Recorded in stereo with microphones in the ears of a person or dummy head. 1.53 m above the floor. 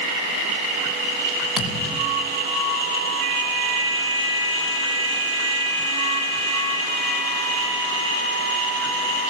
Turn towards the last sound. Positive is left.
turn(degrees=-5)  # may be behind; listen again after turning